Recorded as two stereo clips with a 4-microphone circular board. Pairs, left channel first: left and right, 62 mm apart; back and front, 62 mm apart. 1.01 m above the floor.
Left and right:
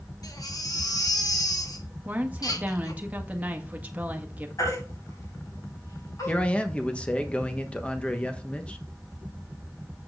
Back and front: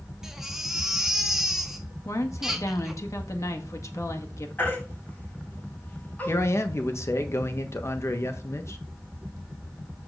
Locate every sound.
0.2 s a baby crying: 85° left, 1.5 m
2.0 s a woman speaking: 155° right, 1.5 m
4.6 s a baby crying: 115° left, 6 m
6.3 s a man speaking: 155° left, 1.2 m